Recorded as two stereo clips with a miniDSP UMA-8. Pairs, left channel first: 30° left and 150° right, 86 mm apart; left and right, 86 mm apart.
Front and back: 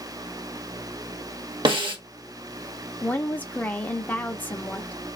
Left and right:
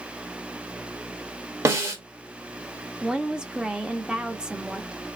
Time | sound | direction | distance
1.6 | a snare drum | 140° right | 0.9 m
3.0 | a woman speaking | 20° right | 0.7 m